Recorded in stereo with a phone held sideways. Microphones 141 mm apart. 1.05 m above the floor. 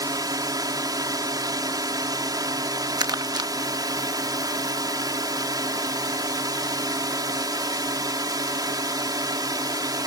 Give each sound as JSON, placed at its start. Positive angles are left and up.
{"t": 0.0, "sound": "a drone", "side_deg": -25}
{"t": 3.0, "sound": "crumpling", "side_deg": -25}